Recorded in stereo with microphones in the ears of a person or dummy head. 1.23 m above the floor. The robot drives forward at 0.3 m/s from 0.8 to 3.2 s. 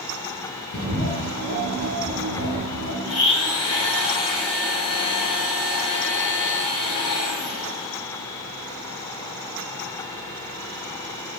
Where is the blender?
80° left, 5 m; by 8.0 s 75° left (ahead or behind), 5 m.